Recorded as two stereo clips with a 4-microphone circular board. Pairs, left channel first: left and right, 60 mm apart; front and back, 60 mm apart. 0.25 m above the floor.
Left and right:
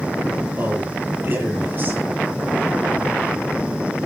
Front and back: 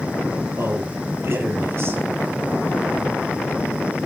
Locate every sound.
0.6 s a man speaking: 140° right, 7 m